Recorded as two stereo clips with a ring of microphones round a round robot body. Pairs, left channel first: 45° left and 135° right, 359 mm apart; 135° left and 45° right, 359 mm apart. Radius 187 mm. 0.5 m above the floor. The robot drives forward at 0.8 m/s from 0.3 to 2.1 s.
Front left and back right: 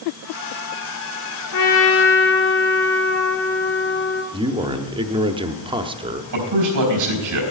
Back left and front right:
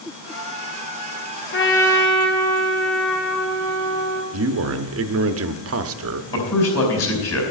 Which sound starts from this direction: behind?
A man speaking, at 6.3 s.